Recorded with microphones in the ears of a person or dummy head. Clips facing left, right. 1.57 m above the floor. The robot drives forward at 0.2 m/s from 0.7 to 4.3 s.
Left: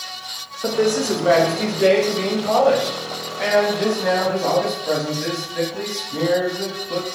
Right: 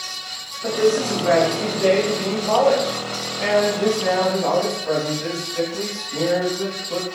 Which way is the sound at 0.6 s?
50° left (ahead or behind).